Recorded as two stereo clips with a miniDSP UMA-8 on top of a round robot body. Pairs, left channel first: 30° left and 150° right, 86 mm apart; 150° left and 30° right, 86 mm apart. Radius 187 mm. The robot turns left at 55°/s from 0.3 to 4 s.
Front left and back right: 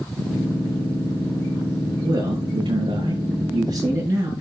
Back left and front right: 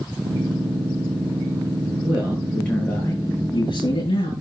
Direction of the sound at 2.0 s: 100° right.